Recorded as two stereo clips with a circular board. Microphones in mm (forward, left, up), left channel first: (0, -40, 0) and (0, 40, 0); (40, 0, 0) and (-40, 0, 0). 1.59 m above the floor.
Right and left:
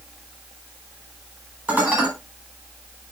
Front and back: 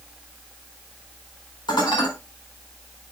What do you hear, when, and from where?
1.7 s dishes clattering: 20° left, 4 m